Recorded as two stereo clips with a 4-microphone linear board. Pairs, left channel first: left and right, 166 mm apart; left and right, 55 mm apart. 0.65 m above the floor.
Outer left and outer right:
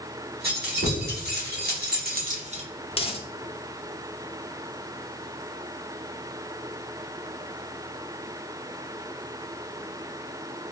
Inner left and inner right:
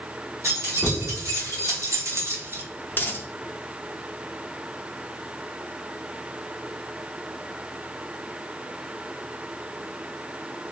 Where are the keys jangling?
70° right (ahead or behind), 1.6 m; by 2.6 s 35° right (ahead or behind), 0.7 m.